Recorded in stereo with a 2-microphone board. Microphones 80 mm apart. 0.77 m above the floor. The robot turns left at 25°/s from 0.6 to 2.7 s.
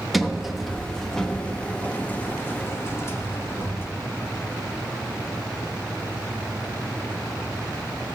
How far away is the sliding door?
About 0.8 m.